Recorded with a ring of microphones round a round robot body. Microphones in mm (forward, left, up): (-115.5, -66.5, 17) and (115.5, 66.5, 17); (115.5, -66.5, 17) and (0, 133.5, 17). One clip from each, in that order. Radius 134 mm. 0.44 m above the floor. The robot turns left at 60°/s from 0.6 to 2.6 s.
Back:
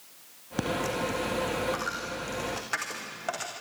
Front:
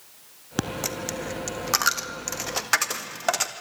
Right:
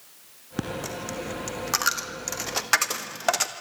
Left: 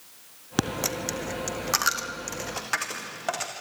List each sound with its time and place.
0.6 s a dropped coin: 95° left, 1.8 m; by 3.5 s 25° right, 1.8 m